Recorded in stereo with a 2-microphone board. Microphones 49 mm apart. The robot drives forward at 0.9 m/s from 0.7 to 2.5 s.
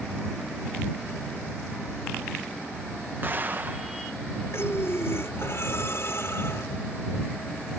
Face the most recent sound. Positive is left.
turn(degrees=55)  # may be behind; listen again after turning